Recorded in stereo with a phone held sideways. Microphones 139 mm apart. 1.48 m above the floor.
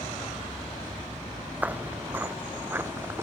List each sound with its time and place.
1.6 s footsteps: 10° right (ahead or behind); by 3.2 s 20° right (ahead or behind)